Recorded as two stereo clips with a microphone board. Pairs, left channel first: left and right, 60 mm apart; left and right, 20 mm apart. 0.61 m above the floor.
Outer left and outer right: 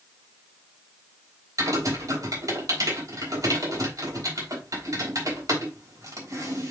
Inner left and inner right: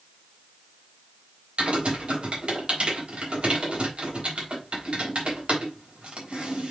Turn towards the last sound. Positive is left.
turn(degrees=-70)  # may be behind; listen again after turning